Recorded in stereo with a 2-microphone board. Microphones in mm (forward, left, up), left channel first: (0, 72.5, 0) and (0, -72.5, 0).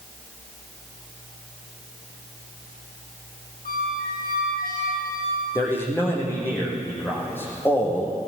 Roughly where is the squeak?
Left.